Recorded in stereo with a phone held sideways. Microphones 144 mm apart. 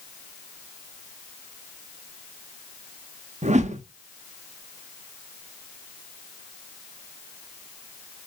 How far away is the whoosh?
About 0.6 m.